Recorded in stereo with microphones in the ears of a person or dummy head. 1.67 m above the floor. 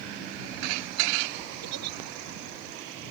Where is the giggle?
75° right (ahead or behind).